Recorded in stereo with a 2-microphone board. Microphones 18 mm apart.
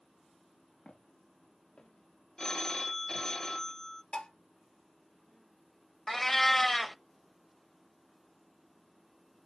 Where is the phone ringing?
30° left (ahead or behind), 0.8 m.